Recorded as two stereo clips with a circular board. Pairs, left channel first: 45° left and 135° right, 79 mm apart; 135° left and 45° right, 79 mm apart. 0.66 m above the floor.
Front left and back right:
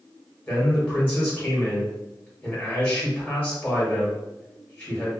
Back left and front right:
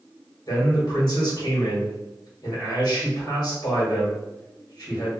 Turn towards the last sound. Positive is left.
turn(degrees=110)